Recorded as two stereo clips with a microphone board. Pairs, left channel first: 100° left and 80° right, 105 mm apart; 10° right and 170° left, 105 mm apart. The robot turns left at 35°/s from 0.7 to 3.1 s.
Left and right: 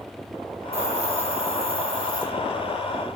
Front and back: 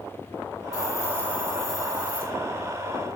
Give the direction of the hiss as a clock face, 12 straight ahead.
2 o'clock.